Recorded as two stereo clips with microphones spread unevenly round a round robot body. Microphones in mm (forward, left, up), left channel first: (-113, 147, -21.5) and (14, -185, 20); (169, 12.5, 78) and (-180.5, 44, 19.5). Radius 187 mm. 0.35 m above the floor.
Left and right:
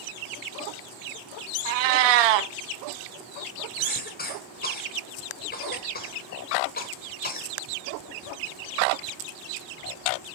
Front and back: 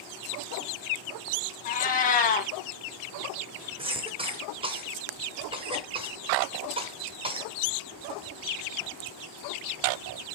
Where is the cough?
130° left, 1.1 m.